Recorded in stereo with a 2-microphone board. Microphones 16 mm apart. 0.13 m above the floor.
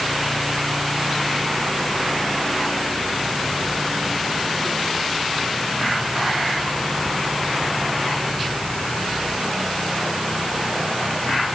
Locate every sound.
Only background noise.